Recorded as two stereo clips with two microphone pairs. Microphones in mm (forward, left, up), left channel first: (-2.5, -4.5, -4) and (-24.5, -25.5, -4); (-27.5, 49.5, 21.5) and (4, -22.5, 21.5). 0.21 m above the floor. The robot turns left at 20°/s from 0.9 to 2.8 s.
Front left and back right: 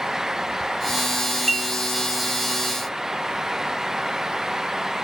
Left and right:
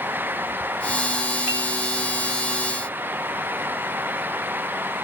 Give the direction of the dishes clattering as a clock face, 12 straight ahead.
12 o'clock.